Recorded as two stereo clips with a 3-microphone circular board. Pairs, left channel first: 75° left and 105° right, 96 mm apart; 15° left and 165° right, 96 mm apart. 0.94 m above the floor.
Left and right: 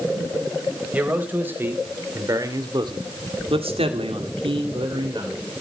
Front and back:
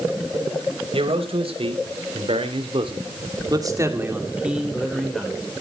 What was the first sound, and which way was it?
A man speaking, straight behind.